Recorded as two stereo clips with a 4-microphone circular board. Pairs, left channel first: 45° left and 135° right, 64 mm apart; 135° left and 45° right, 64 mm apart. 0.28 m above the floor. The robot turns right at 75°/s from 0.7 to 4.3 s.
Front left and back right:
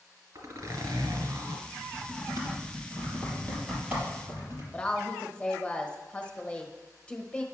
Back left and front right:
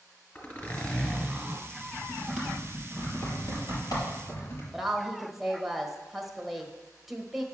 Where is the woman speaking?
35° left, 1.0 m.